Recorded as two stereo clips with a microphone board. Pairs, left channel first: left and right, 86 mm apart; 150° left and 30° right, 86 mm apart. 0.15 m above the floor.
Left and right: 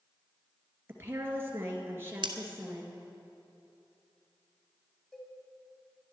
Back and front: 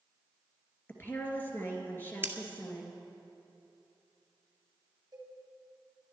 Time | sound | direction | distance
0.9 | a woman speaking | 145° right | 2.5 m
2.2 | scissors | 90° right | 1.0 m
5.1 | a cowbell | 10° left | 3 m